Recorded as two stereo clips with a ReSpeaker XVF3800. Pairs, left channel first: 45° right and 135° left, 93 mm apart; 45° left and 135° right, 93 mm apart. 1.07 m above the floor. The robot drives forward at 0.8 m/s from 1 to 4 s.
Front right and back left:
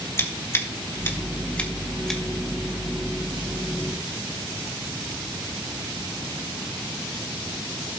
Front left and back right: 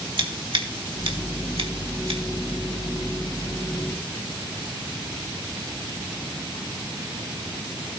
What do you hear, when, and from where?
0.2 s scissors: 105° right, 1.7 m; by 2.2 s 130° right, 2 m